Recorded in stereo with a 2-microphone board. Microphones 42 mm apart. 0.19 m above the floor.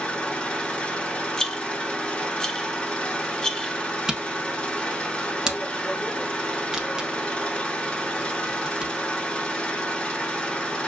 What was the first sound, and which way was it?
An engine running, 25° left (ahead or behind).